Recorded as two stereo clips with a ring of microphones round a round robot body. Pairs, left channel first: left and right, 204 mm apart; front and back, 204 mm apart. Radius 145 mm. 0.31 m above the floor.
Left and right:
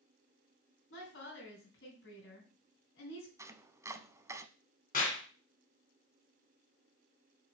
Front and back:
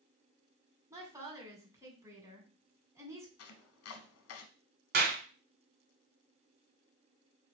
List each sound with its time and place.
0.9 s a woman speaking: 105° left, 3 m
3.4 s chopping: 15° right, 0.8 m
4.9 s a clap: 150° left, 2 m